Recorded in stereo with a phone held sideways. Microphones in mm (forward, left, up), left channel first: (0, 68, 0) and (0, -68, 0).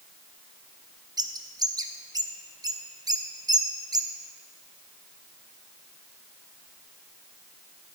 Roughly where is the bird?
Right.